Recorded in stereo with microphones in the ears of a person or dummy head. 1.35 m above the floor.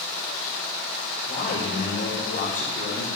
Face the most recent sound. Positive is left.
turn(degrees=40)  # may be behind; listen again after turning